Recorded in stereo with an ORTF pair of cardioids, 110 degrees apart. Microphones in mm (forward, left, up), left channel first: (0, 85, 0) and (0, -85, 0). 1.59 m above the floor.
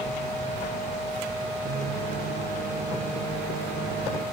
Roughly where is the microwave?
Ahead right.